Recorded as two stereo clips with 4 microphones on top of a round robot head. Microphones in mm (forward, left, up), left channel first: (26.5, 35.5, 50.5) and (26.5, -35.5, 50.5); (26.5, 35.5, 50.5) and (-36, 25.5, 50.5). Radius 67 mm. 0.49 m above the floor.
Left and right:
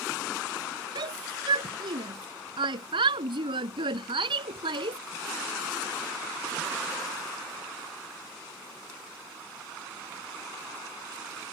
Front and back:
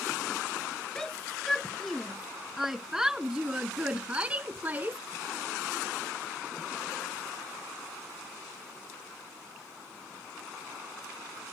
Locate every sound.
0.9 s a shout: 75° right; by 5.0 s 100° right